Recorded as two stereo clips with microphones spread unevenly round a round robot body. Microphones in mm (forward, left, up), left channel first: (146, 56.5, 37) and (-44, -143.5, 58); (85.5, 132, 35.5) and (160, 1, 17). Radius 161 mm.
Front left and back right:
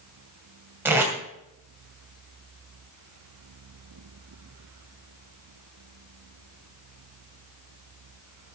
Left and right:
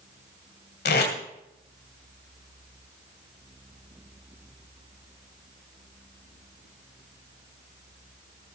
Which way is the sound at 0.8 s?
145° left.